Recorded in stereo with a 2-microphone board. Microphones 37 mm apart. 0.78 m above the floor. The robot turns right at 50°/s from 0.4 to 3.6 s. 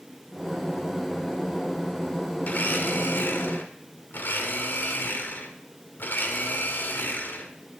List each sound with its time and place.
2.4 s a blender: 50° left, 1.3 m; by 7.5 s 110° left, 1.3 m